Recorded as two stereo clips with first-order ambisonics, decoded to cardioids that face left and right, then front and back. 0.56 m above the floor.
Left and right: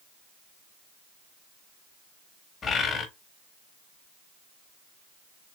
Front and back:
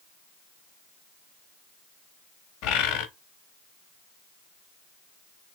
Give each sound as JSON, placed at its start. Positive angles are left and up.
{"t": 2.6, "sound": "a bird", "azimuth_deg": 20, "distance_m": 0.8}